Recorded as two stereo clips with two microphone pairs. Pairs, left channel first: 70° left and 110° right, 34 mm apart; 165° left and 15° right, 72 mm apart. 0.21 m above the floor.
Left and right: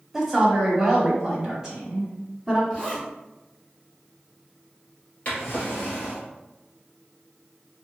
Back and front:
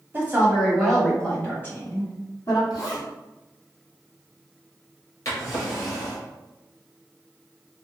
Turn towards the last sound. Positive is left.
turn(degrees=120)